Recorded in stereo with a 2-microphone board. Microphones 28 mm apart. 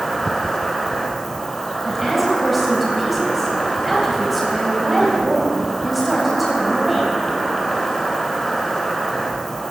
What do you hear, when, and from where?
0.0 s an insect: 15° left (ahead or behind), 2.5 m
1.9 s a woman speaking: 5° right (ahead or behind), 3.5 m